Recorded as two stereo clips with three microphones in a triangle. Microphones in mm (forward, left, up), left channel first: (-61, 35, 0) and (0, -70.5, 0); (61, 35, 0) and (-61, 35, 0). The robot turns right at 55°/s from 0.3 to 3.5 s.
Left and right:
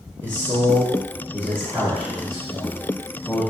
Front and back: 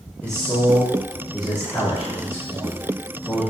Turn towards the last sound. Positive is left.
turn(degrees=105)